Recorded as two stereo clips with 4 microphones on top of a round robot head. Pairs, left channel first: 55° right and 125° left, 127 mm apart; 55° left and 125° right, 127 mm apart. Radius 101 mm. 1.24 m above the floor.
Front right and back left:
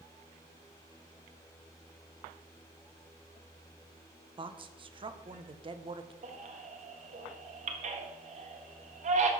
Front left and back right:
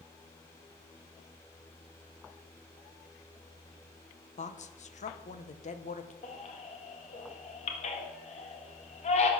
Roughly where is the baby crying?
Left.